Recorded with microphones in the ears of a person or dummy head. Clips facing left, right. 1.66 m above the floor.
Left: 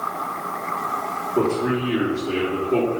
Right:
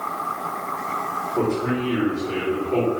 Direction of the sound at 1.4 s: 35° left (ahead or behind).